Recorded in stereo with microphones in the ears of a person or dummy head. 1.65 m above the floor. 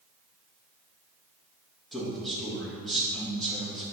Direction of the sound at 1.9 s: Centre (ahead or behind).